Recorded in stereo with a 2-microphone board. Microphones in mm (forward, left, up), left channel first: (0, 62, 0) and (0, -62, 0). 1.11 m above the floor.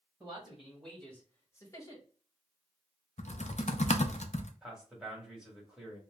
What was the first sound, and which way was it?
A man speaking, 10° right (ahead or behind).